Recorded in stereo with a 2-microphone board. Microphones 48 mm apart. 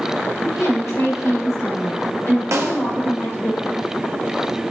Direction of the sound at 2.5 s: 70° right (ahead or behind).